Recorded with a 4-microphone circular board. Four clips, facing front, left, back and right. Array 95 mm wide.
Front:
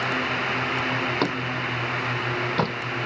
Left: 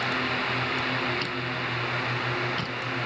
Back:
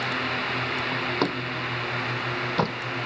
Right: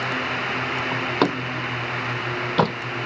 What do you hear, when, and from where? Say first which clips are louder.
0.9 s a door slam: right 7 dB, front 1 dB; 90° right